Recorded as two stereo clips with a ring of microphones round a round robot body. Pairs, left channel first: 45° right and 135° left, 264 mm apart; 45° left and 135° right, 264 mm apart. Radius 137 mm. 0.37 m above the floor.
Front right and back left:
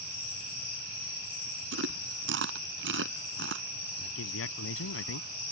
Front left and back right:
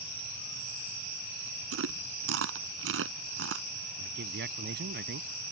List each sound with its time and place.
1.7 s chewing: straight behind
4.0 s a man speaking: 85° right